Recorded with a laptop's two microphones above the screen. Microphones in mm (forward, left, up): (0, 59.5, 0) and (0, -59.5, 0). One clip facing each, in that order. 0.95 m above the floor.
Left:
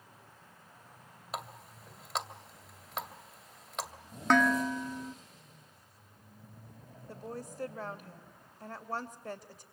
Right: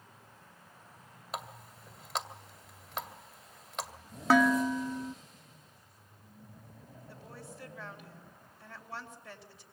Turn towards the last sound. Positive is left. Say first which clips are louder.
# left 8 dB
turn(degrees=45)  # may be behind; listen again after turning